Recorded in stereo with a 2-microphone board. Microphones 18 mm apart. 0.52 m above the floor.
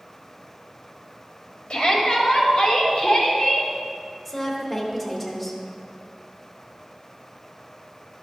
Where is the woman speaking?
5° right (ahead or behind), 1.8 m.